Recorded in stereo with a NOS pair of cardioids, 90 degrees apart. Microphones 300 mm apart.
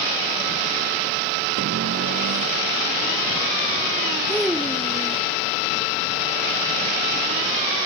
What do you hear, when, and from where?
1.6 s a cupboard door: 50° right
4.3 s a child speaking: straight ahead